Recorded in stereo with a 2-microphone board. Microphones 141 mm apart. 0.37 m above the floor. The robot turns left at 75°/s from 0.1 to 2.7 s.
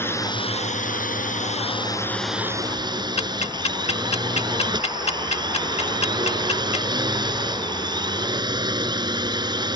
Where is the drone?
165° left; by 9.8 s 30° right.